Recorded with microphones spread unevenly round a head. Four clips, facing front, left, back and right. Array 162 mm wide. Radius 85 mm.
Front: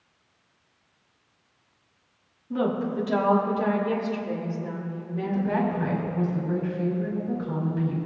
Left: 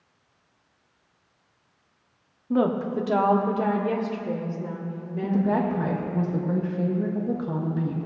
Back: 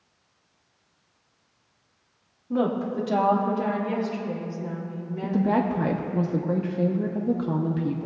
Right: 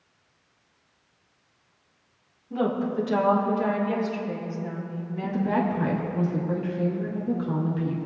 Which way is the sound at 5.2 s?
160° left.